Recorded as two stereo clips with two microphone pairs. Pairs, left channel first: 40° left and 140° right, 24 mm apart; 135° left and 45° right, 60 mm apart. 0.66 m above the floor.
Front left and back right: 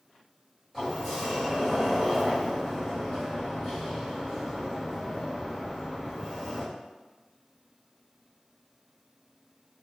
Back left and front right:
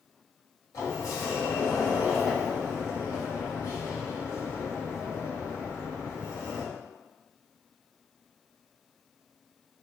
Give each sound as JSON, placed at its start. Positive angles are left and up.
{"t": 0.7, "sound": "a sliding door", "azimuth_deg": 130, "distance_m": 1.5}